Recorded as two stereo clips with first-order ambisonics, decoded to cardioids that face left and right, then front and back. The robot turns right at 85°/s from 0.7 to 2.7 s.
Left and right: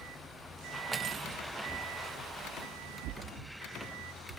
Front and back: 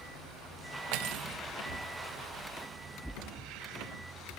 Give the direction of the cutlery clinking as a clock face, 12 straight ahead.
6 o'clock.